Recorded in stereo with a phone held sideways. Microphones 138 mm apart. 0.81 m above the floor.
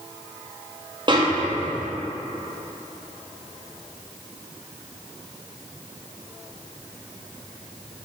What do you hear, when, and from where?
1.1 s a snare drum: 35° right (ahead or behind), 0.5 m